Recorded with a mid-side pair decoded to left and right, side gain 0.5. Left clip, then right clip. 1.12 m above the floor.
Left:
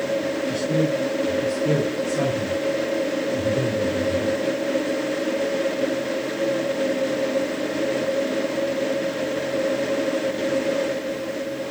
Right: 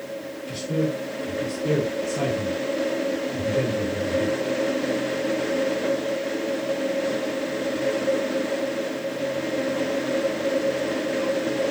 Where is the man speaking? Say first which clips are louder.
Left 1 dB; 10° right, 5.5 m.